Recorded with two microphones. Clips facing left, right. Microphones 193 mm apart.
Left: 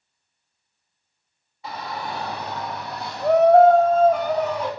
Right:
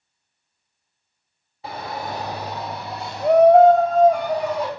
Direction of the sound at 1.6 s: 30° right (ahead or behind).